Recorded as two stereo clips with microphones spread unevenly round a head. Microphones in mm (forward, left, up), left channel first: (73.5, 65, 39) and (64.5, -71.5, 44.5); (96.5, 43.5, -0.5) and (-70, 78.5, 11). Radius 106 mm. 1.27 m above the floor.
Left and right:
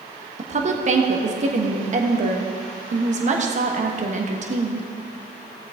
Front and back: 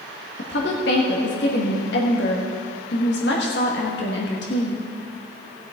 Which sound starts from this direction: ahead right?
A woman speaking, at 0.4 s.